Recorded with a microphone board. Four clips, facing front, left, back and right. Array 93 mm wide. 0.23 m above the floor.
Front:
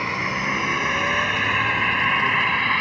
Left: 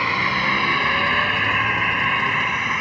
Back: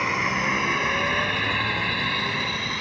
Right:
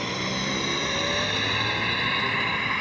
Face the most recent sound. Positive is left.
turn(degrees=20)